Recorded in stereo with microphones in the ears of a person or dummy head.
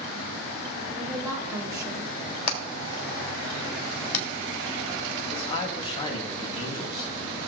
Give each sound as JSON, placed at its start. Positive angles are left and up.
{"t": 1.0, "sound": "a woman speaking", "side_deg": -20, "distance_m": 1.8}
{"t": 2.5, "sound": "hammering", "side_deg": 45, "distance_m": 2.5}
{"t": 5.3, "sound": "a man speaking", "side_deg": 30, "distance_m": 2.5}